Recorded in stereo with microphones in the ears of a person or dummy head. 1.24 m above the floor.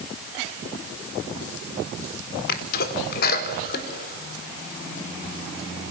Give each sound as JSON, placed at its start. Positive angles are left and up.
{"t": 2.5, "sound": "a sneeze", "side_deg": 65, "distance_m": 4.0}